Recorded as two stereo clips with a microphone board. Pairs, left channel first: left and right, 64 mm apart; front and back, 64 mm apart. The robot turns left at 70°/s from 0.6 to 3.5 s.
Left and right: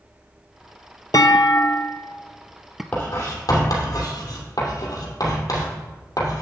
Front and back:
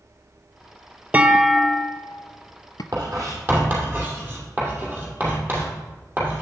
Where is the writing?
160° left, 2.5 m; by 6.4 s 120° left, 2.5 m.